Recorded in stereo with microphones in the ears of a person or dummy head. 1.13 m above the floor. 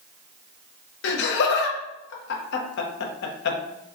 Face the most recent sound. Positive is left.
turn(degrees=70)  # may be behind; listen again after turning